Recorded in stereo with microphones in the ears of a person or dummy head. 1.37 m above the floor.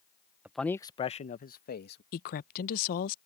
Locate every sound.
0.5 s a man speaking: 5° right (ahead or behind); by 2.0 s 55° left (ahead or behind)
2.1 s a woman speaking: 50° left (ahead or behind)